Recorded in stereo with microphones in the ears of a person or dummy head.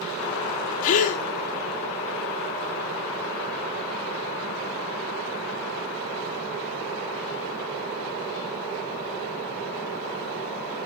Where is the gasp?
45° left (ahead or behind), 1.4 m.